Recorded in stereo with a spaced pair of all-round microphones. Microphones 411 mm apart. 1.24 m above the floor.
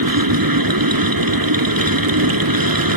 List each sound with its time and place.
0.0 s a machine running: 55° right (ahead or behind)